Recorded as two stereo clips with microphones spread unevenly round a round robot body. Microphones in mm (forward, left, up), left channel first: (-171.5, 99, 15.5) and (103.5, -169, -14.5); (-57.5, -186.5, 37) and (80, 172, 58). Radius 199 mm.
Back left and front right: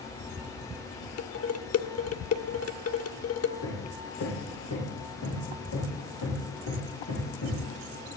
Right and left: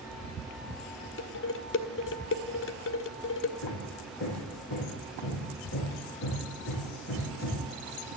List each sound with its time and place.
1.2 s dishes clattering: 170° right, 1.6 m
3.6 s hammering: 170° right, 9 m